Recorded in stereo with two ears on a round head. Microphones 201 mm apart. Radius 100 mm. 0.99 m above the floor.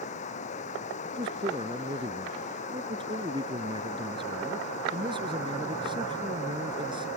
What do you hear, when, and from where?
0.0 s running water: 35° left (ahead or behind)
1.1 s a man speaking: 20° right (ahead or behind)